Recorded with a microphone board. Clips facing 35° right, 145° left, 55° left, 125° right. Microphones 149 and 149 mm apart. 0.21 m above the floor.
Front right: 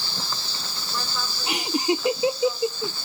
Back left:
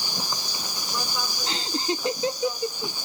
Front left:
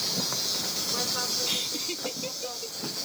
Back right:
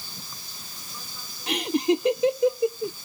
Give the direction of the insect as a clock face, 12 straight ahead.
10 o'clock.